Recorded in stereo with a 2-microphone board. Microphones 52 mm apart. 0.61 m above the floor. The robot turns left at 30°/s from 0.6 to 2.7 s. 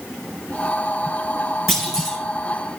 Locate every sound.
1.7 s a clunk: centre (ahead or behind), 3 m; by 2.2 s 15° left (ahead or behind), 3 m